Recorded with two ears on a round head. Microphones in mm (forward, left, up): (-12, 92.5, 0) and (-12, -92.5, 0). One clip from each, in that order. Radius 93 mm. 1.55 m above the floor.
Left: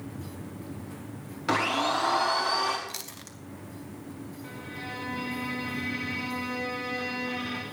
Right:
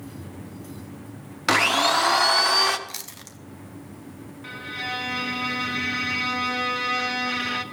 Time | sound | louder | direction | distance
1.5 | a blender | right 7 dB | 50° right (ahead or behind) | 1.0 m
2.9 | chewing | right 2 dB | 5° right (ahead or behind) | 0.7 m
4.4 | a violin | right 10 dB | 65° right (ahead or behind) | 1.2 m